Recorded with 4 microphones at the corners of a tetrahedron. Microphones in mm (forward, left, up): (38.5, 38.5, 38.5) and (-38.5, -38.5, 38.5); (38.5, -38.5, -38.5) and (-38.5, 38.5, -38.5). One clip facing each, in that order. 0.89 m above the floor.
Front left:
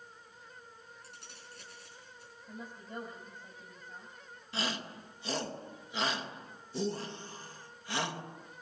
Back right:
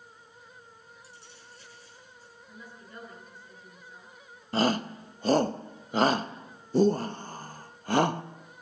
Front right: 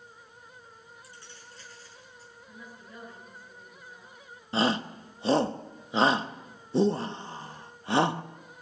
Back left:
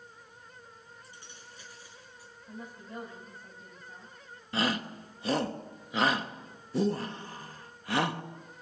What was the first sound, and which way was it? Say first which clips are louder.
Keys jangling: back right 1 dB, front right 1 dB; 65° left.